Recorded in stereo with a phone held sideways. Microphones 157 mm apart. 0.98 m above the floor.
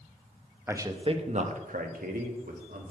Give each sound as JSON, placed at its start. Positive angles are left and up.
{"t": 0.7, "sound": "a man speaking", "side_deg": -15, "distance_m": 0.8}